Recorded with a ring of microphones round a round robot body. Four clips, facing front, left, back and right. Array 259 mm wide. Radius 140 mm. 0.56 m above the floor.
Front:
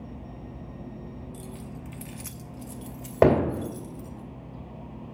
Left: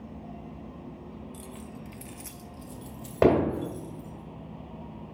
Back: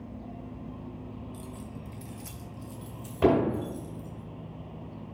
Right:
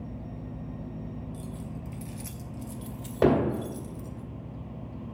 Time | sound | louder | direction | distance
1.3 | keys jangling | right 3 dB, front 1 dB | 70° left | 0.9 m
3.2 | hammering | left 1 dB, front 3 dB | 10° left | 2.5 m